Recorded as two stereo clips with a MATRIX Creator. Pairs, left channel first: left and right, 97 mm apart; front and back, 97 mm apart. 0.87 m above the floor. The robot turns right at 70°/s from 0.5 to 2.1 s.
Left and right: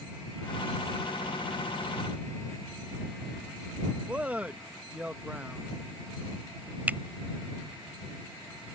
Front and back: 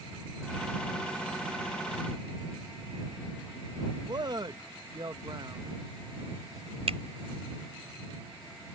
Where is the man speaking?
160° right.